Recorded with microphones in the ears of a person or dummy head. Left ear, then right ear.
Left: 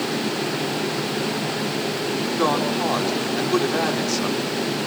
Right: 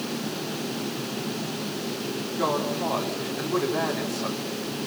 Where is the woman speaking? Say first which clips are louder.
Left 4 dB; 80° left, 4.5 m.